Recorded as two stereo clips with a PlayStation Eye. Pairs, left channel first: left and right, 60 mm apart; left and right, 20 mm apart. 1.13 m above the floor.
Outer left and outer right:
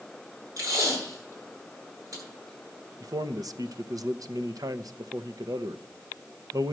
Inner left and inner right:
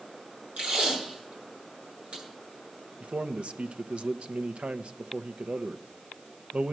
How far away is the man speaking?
About 0.8 m.